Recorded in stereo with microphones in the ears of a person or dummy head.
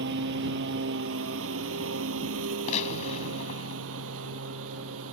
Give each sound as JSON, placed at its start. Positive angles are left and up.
{"t": 0.0, "sound": "a lawn mower", "side_deg": -65}
{"t": 2.7, "sound": "a gunshot", "side_deg": 45}